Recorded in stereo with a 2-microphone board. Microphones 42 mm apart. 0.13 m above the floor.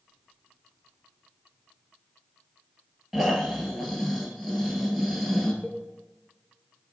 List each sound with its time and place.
3.1 s snoring: 5° right (ahead or behind), 1.2 m
5.6 s a cowbell: centre (ahead or behind), 0.7 m